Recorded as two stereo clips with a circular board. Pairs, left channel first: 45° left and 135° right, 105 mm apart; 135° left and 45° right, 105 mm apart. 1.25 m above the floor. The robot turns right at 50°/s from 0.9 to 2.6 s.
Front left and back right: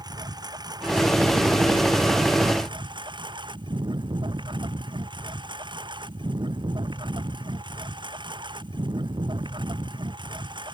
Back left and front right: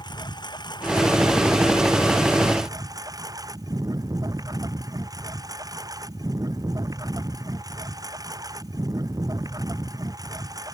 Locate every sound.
0.0 s a lawn mower: straight behind; by 10.8 s 95° right